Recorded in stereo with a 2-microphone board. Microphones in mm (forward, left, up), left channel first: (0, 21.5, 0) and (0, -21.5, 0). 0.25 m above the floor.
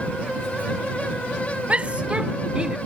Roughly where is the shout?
Right.